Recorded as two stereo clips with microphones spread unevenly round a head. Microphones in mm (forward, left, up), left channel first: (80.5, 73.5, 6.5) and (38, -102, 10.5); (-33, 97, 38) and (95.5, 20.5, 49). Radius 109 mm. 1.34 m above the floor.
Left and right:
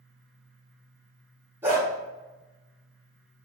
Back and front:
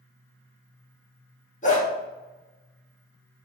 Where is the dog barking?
175° right, 0.9 m.